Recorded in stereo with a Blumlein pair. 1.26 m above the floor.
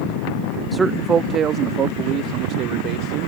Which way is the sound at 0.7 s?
10° right.